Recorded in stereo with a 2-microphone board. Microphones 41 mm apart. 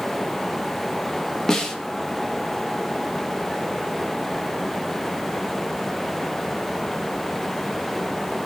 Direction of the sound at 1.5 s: 15° left (ahead or behind).